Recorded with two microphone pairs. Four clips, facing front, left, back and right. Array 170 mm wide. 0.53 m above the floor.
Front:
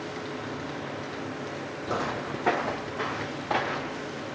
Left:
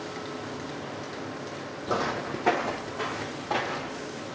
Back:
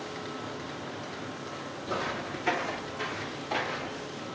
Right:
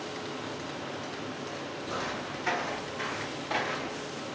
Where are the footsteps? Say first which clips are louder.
Left 8 dB, front 3 dB; 70° left, 1.0 m; by 4.1 s 15° left, 2.5 m.